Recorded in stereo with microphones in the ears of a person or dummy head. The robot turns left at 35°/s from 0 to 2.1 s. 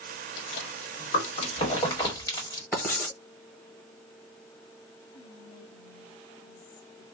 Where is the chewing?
45° left (ahead or behind), 1.5 m; by 2.6 s 15° left (ahead or behind), 1.5 m.